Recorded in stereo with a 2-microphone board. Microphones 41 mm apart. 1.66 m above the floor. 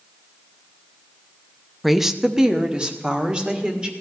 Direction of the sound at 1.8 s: Centre (ahead or behind).